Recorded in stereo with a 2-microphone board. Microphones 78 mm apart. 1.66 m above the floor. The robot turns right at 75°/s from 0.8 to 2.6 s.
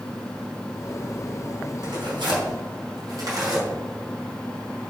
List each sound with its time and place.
1.8 s tearing paper: 60° right (ahead or behind), 4 m; by 3.7 s 50° right (ahead or behind), 4 m